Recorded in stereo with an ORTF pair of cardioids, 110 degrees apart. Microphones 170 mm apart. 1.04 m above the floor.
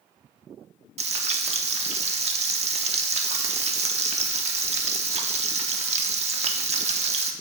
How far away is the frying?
About 1.0 m.